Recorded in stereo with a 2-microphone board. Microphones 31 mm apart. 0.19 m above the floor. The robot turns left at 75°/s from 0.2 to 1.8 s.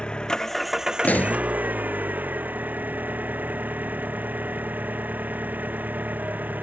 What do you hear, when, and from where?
0.0 s an engine running: 30° left; by 6.6 s 90° right
1.0 s a pop: 70° left (ahead or behind)